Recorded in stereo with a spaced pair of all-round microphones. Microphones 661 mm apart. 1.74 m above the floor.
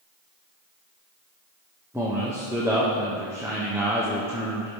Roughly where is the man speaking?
Centre.